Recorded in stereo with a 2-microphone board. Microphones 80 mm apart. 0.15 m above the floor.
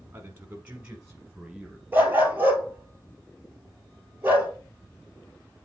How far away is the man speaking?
About 1.2 m.